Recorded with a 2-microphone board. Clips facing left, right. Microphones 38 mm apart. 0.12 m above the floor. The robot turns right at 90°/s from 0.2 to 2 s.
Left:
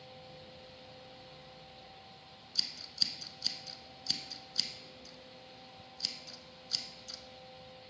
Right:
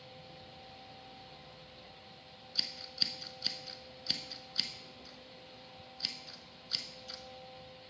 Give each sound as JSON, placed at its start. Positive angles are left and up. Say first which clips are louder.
{"t": 2.5, "sound": "scissors", "louder": "even", "side_deg": -15, "distance_m": 0.7}